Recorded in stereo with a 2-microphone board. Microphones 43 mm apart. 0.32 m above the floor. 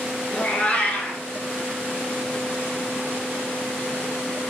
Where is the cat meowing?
35° left (ahead or behind), 0.8 m.